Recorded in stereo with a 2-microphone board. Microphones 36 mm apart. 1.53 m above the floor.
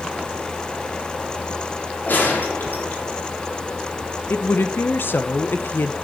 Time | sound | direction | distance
2.1 | a gunshot | 65° left (ahead or behind) | 3.5 m
4.3 | a woman speaking | 85° left | 1.2 m